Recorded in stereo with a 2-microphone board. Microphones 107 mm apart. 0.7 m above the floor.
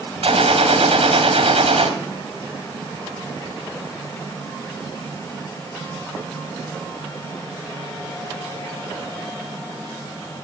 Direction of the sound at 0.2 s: 80° right.